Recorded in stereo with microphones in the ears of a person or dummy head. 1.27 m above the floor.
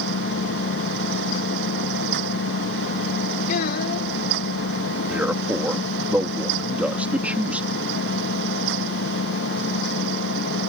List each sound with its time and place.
0.0 s an engine running: 60° left (ahead or behind)
3.5 s a child speaking: 50° left (ahead or behind)
5.1 s a man speaking: 10° right (ahead or behind)